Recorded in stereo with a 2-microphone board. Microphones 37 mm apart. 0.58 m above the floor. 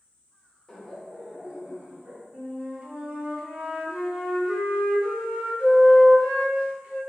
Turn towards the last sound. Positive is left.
turn(degrees=-40)  # may be behind; listen again after turning